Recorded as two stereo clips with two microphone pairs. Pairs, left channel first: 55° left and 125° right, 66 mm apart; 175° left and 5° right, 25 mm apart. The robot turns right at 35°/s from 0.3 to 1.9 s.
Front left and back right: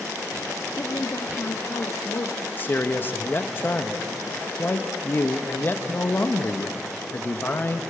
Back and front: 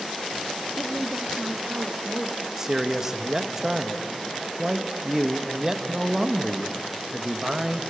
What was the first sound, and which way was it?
A woman speaking, 5° left.